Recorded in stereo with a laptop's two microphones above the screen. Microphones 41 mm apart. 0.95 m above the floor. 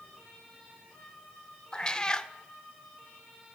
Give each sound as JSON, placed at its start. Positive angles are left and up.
{"t": 1.7, "sound": "a cat meowing", "side_deg": 20, "distance_m": 0.6}